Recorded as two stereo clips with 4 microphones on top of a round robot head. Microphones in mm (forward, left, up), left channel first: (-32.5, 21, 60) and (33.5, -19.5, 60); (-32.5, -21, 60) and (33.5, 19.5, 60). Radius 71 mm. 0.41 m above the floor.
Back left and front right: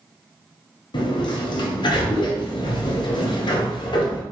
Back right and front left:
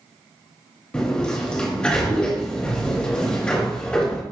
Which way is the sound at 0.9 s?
135° left.